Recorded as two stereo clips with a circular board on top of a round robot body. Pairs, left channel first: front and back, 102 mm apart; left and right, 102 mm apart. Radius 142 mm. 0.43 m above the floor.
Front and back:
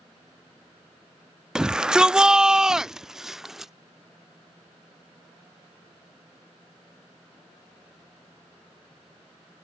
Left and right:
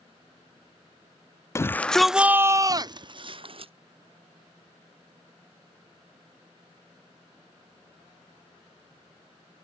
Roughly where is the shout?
Left.